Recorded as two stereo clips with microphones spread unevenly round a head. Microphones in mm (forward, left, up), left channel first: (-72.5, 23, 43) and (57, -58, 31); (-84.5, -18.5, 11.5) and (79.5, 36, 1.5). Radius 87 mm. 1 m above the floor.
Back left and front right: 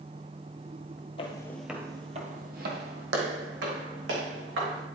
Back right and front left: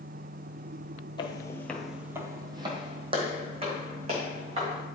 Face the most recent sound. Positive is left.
turn(degrees=-40)